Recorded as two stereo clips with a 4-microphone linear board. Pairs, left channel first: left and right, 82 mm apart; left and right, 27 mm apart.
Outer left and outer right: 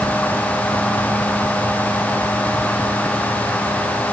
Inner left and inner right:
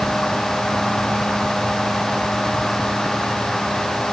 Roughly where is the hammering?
No hammering in this recording.